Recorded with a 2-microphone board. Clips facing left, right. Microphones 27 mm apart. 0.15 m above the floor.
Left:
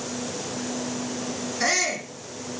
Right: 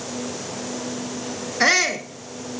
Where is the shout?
35° right (ahead or behind), 2 m.